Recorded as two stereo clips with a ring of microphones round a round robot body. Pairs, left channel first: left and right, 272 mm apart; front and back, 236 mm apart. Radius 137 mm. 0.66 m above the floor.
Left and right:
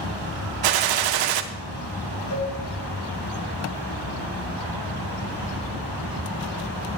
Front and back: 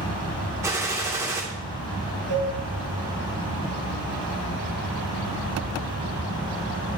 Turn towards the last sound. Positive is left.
turn(degrees=120)